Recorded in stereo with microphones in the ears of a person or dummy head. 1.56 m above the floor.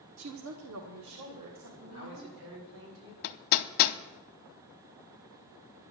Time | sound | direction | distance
0.2 | a woman speaking | 85° right | 0.9 m
1.8 | a man speaking | 80° right | 6 m
3.2 | hammering | 60° left (ahead or behind) | 0.8 m